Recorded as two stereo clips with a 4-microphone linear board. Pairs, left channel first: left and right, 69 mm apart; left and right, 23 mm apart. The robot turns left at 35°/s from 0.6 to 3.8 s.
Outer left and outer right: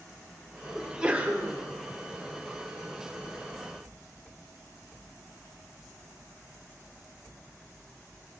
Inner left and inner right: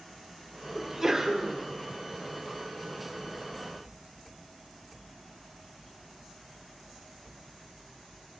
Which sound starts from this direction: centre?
A sneeze, at 0.8 s.